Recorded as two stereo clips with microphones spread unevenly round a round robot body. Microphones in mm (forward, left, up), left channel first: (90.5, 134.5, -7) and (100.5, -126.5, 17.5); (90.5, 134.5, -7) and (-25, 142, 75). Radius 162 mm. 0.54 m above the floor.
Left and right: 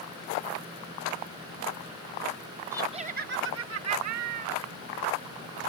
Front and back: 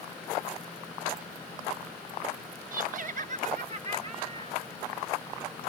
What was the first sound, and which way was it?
Laughter, 170° right.